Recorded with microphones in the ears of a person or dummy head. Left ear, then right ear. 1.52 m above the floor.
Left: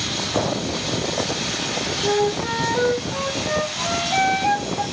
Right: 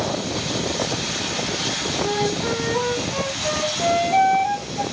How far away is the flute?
About 1.5 m.